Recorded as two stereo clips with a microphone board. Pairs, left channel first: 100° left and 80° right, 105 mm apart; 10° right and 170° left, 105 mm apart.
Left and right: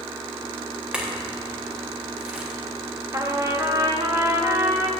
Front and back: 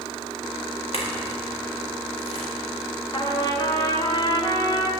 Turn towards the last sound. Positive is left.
turn(degrees=-30)